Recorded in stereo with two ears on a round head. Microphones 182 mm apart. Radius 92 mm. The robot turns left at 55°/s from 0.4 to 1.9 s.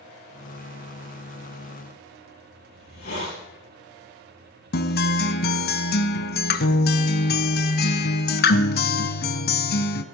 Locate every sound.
2.7 s a hiss: 50° left (ahead or behind), 9.5 m
4.7 s a guitar: 50° left (ahead or behind), 1.1 m